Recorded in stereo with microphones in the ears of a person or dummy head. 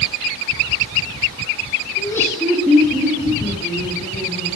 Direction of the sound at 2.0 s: 30° left (ahead or behind).